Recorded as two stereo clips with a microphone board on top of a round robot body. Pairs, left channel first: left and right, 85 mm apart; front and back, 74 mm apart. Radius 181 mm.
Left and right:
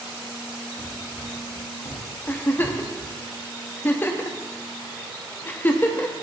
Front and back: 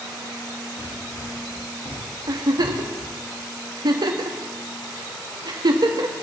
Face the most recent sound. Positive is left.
turn(degrees=155)